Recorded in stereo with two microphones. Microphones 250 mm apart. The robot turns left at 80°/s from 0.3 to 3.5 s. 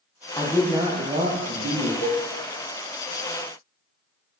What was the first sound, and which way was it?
A man speaking, 20° left.